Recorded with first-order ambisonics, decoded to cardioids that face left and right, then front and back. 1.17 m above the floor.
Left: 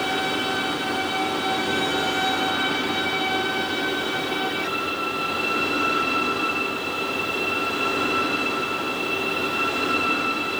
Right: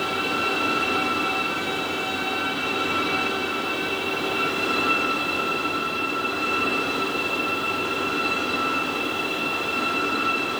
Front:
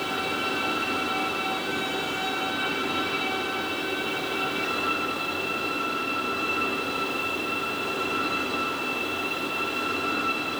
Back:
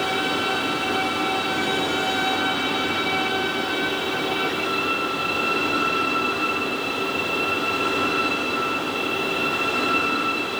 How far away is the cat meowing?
No cat meowing in this recording.